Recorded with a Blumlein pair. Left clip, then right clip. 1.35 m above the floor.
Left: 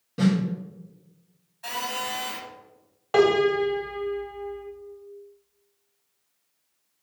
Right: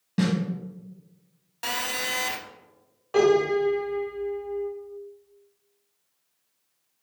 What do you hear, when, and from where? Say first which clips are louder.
0.2 s a snare drum: left 2 dB; 70° right, 1.3 m
1.6 s a phone buzzing: right 2 dB; 50° right, 0.5 m
3.1 s a piano: left 1 dB; 25° left, 0.9 m